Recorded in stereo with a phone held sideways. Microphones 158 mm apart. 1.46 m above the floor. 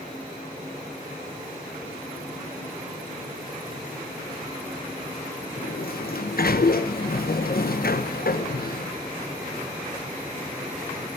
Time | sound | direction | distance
5.6 | a sliding door | 70° left (ahead or behind) | 0.9 m